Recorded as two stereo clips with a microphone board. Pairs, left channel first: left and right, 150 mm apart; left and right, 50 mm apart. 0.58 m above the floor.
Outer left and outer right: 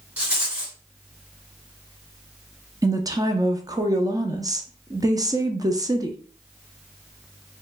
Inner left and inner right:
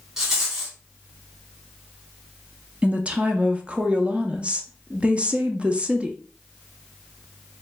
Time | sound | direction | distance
0.2 | a rattle | 10° right (ahead or behind) | 2 m
2.8 | a woman speaking | 25° right (ahead or behind) | 0.6 m